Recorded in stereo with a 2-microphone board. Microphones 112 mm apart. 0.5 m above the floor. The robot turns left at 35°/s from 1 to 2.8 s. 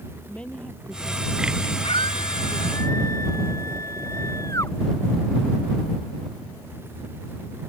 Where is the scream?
65° left; by 4.7 s 30° left.